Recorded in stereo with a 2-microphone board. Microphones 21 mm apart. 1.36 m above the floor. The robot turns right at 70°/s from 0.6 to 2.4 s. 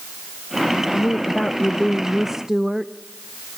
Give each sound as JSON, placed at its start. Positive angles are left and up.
{"t": 0.9, "sound": "a woman speaking", "azimuth_deg": 100, "distance_m": 0.6}